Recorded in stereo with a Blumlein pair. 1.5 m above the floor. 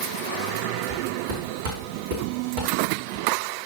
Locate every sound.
0.9 s footsteps: 55° right, 5.5 m